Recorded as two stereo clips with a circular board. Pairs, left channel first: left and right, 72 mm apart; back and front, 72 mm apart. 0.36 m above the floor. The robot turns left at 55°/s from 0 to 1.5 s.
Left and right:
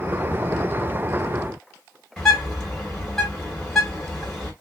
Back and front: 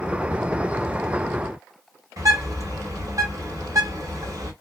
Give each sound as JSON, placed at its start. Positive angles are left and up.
{"t": 2.2, "sound": "a bird", "azimuth_deg": 5, "distance_m": 2.5}